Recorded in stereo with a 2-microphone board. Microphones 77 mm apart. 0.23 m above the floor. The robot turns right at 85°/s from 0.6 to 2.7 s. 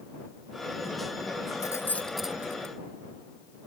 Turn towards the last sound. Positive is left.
turn(degrees=-45)  # may be behind; listen again after turning